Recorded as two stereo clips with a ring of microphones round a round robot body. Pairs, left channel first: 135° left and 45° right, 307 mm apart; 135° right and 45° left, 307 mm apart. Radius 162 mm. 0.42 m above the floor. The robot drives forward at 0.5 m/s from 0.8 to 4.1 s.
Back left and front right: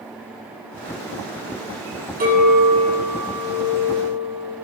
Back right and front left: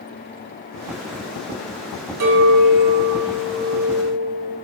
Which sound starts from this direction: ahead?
A clink, at 2.2 s.